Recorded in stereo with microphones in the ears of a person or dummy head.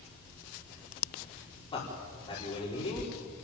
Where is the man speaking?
25° left (ahead or behind), 4.5 m.